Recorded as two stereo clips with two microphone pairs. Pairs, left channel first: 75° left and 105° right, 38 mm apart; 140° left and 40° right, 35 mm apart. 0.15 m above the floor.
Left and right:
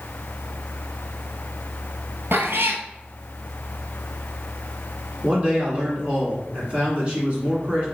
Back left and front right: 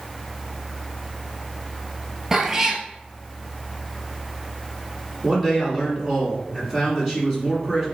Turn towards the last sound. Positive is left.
turn(degrees=-95)